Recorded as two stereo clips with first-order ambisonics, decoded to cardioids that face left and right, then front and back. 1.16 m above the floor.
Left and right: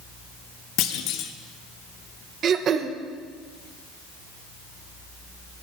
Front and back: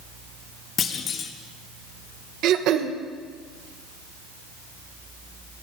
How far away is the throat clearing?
About 1.2 m.